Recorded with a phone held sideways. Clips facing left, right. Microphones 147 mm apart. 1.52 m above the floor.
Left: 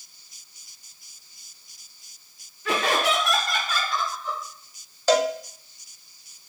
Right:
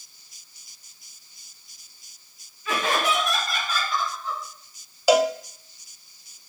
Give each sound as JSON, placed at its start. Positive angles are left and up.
{"t": 2.6, "sound": "laughter", "side_deg": 80, "distance_m": 1.5}
{"t": 5.1, "sound": "a cowbell", "side_deg": -10, "distance_m": 0.5}